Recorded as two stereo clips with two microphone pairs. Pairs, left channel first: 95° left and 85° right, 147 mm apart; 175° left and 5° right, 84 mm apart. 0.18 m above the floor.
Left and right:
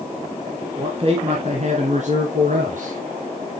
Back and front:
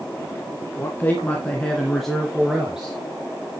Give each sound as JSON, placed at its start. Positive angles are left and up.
{"t": 0.8, "sound": "a man speaking", "azimuth_deg": -130, "distance_m": 2.0}